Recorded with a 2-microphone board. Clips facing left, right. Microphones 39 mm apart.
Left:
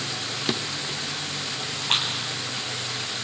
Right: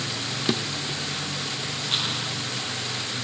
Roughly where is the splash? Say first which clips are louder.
Left 3 dB; left.